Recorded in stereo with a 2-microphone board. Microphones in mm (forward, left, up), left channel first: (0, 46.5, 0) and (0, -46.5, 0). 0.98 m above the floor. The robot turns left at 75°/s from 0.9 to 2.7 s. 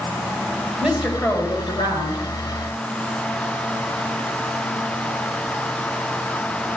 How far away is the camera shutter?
I don't hear a camera shutter.